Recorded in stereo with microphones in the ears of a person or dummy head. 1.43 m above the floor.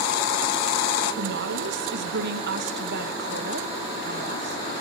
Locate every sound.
1.2 s a woman speaking: 65° right (ahead or behind), 1.5 m